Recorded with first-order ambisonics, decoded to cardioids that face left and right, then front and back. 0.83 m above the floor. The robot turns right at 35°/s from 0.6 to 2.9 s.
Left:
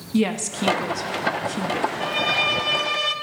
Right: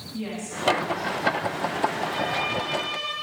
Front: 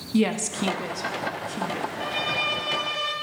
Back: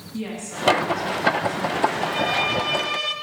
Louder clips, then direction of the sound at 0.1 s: Left 10 dB, front 6 dB; 50° left.